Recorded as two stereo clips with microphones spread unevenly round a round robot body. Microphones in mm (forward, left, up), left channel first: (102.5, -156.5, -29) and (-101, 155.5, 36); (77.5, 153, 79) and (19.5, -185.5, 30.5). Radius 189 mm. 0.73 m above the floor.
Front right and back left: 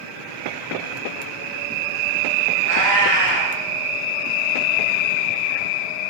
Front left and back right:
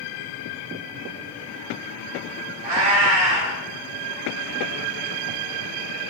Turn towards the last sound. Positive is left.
turn(degrees=-175)